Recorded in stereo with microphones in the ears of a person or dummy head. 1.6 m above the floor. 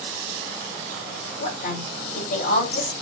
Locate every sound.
1.4 s a woman speaking: 60° left (ahead or behind), 4 m